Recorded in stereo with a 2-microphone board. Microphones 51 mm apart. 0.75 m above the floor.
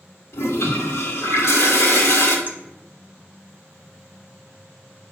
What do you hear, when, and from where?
0.3 s a toilet flushing: 65° left (ahead or behind), 1.7 m
2.5 s a clink: 40° right (ahead or behind), 1.1 m